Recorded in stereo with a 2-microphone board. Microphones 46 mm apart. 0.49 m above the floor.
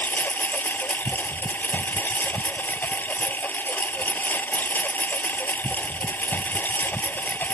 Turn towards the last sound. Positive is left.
turn(degrees=40)  # may be behind; listen again after turning